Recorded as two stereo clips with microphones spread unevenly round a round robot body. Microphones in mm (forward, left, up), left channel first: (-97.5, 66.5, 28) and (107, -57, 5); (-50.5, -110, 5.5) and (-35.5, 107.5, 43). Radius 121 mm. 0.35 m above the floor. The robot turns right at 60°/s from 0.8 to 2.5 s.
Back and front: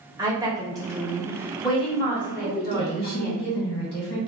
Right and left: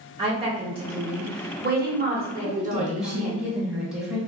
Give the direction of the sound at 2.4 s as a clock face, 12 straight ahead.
6 o'clock.